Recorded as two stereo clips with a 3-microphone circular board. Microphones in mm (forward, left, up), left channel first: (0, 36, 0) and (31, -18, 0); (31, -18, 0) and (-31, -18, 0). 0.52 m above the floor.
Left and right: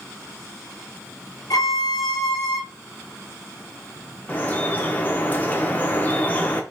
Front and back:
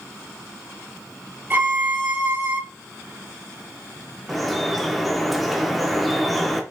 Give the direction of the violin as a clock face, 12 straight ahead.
8 o'clock.